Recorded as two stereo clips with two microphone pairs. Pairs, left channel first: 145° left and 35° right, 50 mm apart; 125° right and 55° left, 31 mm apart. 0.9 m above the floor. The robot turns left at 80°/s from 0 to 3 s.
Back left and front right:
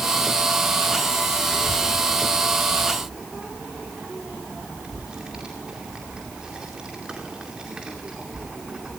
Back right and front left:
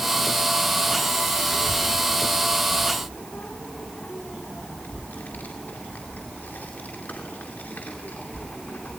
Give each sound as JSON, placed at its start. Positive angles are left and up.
{"t": 1.5, "sound": "a child speaking", "azimuth_deg": 10, "distance_m": 2.0}